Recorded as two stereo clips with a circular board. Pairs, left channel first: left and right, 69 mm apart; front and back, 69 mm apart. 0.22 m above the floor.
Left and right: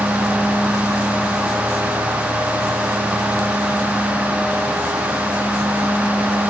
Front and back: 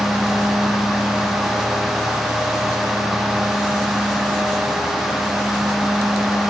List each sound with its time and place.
Only background noise.